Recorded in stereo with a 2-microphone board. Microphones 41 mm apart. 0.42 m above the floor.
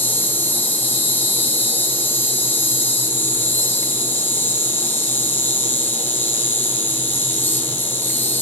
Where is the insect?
65° left (ahead or behind), 1.5 m.